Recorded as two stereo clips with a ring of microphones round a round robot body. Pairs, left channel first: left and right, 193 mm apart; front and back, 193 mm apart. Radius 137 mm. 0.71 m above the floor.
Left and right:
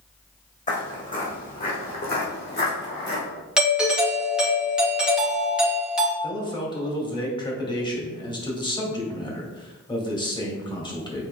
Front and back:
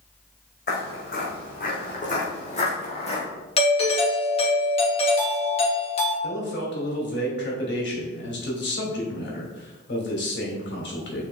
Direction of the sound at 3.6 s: 10° right.